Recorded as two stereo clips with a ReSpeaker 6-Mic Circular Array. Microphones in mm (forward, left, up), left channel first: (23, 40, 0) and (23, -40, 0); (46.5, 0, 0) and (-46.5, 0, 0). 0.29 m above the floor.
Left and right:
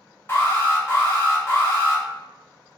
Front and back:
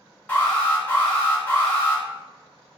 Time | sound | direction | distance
0.3 | an alarm | 55° left | 0.9 m